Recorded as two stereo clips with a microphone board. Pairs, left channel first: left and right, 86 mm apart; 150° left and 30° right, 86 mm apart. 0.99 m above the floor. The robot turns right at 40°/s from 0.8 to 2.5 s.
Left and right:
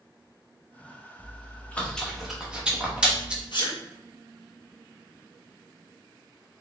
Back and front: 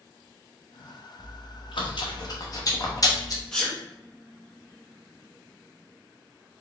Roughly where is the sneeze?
Ahead left.